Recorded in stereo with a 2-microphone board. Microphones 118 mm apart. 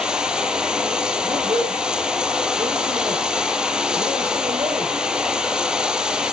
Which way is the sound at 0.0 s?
5° right (ahead or behind).